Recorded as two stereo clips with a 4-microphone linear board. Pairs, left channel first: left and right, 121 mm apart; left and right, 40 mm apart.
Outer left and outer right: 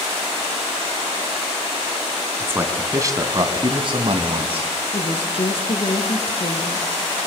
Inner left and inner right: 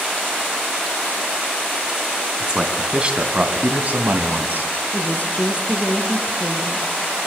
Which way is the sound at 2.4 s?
15° right (ahead or behind).